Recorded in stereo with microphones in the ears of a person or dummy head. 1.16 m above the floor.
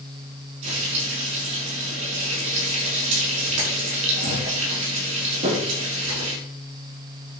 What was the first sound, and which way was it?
Frying, 40° right (ahead or behind).